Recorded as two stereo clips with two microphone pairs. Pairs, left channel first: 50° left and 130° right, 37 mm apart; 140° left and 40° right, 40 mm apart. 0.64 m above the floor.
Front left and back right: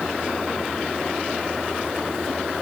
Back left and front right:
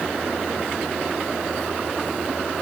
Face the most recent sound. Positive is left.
No sound to turn to.